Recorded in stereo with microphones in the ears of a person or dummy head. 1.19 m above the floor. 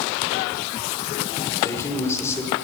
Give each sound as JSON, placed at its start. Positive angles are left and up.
{"t": 1.6, "sound": "a man speaking", "side_deg": 15, "distance_m": 5.0}